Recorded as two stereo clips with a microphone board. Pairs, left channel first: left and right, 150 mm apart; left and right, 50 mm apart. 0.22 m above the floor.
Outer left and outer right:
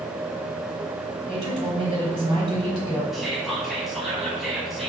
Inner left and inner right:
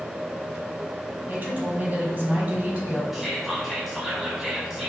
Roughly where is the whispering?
Centre.